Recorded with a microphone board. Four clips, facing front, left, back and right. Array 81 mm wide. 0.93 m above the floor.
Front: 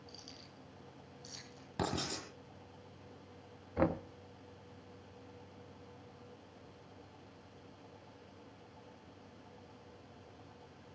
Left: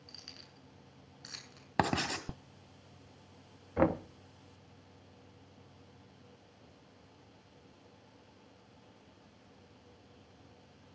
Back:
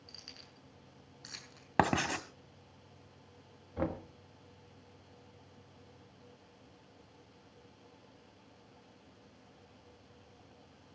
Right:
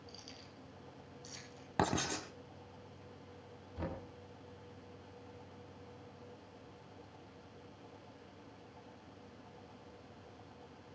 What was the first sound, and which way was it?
Keys jangling, 135° left.